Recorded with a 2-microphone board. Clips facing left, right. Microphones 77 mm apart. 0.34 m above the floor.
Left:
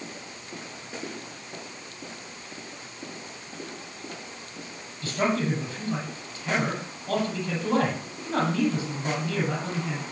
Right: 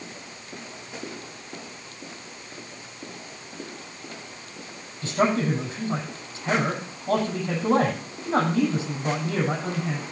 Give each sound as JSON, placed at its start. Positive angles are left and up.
{"t": 5.0, "sound": "a man speaking", "side_deg": -25, "distance_m": 9.0}